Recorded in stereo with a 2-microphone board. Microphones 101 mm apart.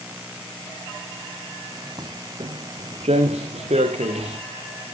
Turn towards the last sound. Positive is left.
turn(degrees=-80)